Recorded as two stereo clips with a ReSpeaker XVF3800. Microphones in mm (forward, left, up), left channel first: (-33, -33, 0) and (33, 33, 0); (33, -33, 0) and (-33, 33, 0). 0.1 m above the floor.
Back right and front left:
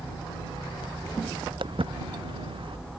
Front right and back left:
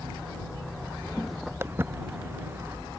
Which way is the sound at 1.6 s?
70° left.